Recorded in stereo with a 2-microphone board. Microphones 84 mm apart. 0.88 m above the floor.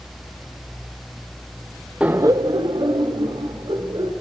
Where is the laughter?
10° right (ahead or behind), 0.6 m; by 4.1 s 80° right, 3 m.